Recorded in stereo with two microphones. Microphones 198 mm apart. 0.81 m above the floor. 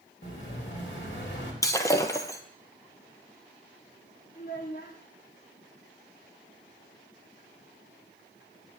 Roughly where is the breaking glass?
Centre.